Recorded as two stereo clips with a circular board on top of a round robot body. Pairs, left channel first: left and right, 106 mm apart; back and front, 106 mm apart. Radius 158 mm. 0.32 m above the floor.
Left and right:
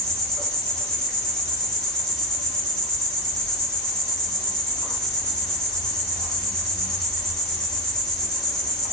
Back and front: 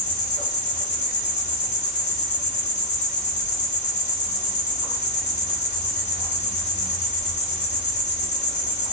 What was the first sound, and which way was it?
An insect, 175° left.